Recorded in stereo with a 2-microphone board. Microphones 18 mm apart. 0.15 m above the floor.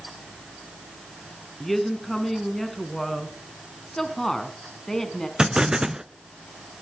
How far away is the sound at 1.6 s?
About 1.7 m.